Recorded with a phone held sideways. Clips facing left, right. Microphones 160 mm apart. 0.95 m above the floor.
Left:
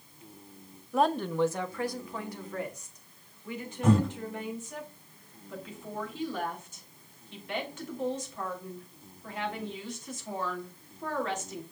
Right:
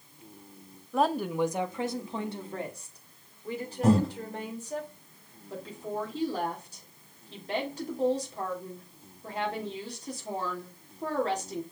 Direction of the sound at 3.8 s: 35° right (ahead or behind).